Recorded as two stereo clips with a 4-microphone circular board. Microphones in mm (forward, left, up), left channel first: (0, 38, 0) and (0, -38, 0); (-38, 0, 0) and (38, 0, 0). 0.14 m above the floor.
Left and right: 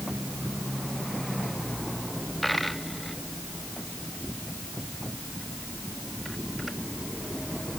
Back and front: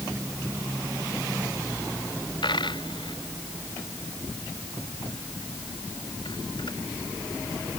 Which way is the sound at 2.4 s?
Straight behind.